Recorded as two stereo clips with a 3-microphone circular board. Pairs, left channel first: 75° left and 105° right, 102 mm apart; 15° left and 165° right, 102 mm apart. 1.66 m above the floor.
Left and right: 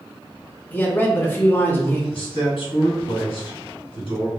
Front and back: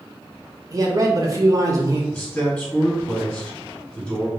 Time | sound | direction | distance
0.7 | a man speaking | 140° left | 0.6 m
2.1 | a man speaking | 85° left | 1.0 m